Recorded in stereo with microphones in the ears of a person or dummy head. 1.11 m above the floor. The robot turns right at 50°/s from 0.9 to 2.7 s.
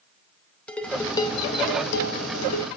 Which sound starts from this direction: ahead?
Dishes clattering, at 0.7 s.